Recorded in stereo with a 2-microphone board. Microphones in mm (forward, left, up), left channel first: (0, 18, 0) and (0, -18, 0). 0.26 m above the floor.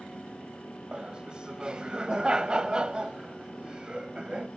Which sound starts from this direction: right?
Laughter, at 0.9 s.